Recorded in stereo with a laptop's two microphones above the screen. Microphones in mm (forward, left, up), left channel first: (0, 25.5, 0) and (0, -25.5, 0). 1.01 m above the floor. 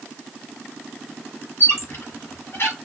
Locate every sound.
1.6 s a squeak: 50° left (ahead or behind), 1.0 m